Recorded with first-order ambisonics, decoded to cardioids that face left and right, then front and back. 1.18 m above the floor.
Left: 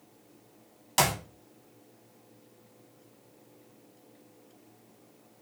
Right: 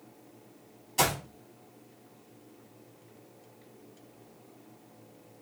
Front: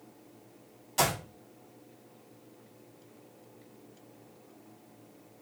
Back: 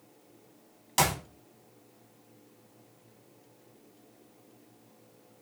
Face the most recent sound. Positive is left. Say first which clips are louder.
# left 1 dB, back 1 dB
turn(degrees=120)